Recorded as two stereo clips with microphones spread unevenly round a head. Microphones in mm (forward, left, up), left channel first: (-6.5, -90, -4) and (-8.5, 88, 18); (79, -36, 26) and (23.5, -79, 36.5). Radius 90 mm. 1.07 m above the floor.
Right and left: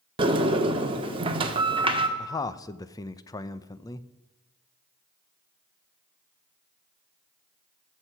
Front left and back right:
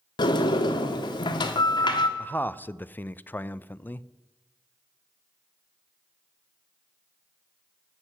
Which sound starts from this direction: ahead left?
A sliding door, at 0.2 s.